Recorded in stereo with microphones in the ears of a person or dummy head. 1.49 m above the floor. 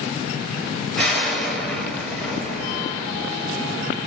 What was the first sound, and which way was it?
An explosion, centre (ahead or behind).